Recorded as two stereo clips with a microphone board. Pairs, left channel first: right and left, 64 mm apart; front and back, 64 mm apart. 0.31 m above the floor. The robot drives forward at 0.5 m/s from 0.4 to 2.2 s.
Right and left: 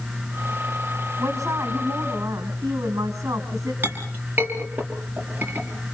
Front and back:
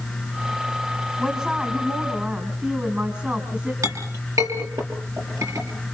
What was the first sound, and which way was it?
A woman speaking, 105° left.